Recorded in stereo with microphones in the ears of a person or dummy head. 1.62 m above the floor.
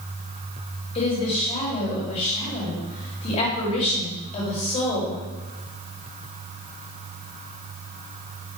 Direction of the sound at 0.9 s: 40° left (ahead or behind).